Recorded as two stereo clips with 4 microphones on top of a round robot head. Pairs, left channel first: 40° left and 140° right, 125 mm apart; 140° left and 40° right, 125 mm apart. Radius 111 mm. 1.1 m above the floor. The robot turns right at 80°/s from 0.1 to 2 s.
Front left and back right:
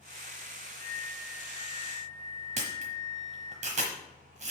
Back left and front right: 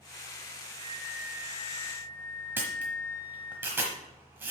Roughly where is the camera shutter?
Behind right.